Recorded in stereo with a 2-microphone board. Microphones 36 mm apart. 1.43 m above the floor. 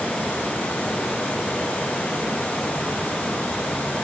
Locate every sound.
Only background noise.